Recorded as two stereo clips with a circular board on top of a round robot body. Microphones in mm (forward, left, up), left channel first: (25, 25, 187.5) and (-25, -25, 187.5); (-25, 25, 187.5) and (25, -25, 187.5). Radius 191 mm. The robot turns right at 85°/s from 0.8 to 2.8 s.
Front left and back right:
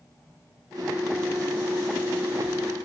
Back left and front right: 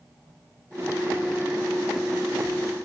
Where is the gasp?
I don't hear a gasp.